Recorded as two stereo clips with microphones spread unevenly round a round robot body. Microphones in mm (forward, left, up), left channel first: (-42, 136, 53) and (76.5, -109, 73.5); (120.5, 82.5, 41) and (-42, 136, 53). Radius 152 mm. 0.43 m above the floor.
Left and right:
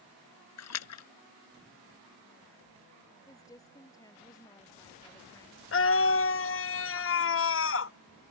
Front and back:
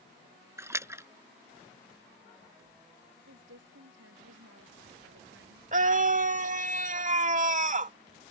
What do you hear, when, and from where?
0.6 s a splash: 90° left
3.3 s a woman speaking: 165° right
5.7 s a scream: 130° left